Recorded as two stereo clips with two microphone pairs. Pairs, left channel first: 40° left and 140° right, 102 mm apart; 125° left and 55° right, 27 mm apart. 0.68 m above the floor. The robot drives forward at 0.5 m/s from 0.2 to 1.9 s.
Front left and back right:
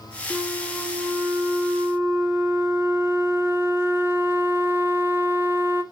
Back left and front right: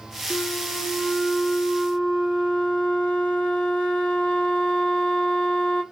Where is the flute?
145° left, 1.3 m; by 5.8 s 160° left, 1.9 m.